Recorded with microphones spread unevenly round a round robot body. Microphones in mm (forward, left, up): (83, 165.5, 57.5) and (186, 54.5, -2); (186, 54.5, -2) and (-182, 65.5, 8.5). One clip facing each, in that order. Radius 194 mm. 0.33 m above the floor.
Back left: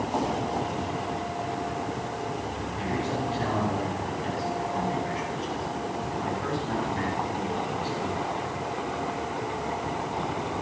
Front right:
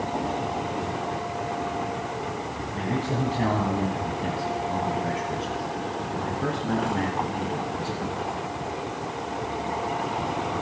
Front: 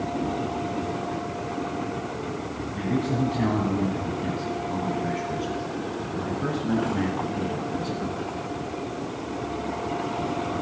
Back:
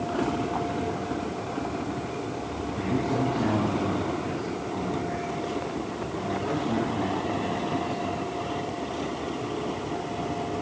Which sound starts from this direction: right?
A man speaking, at 2.8 s.